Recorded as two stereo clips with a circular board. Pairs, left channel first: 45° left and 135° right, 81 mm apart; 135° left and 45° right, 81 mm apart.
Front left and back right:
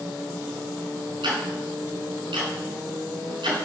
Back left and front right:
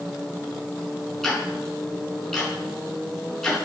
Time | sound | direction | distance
1.2 | ticking | 140° right | 5.5 m